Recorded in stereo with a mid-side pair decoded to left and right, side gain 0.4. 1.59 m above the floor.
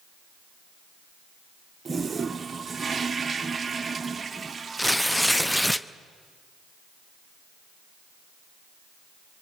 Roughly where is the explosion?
No explosion in this recording.